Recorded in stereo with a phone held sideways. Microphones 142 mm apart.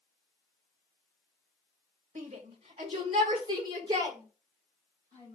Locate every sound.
2.1 s a shout: 55° right (ahead or behind), 2.5 m; by 5.4 s 25° right (ahead or behind), 7 m